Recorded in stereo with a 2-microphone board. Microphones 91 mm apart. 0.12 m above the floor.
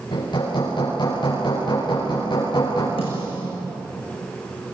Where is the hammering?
55° left (ahead or behind), 9 m.